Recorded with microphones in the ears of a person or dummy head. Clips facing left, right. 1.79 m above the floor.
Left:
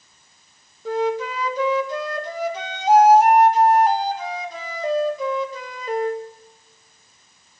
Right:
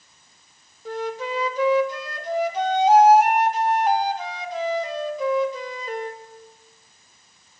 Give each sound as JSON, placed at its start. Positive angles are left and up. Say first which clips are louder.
{"t": 0.8, "sound": "a flute", "louder": "left 6 dB", "side_deg": 70, "distance_m": 1.9}